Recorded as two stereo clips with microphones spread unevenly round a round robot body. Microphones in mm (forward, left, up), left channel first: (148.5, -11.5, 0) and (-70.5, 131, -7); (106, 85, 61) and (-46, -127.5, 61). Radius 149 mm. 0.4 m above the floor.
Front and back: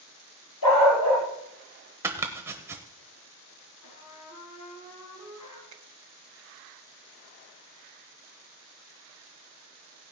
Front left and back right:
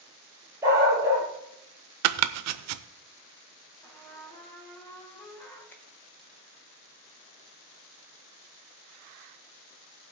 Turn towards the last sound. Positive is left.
turn(degrees=135)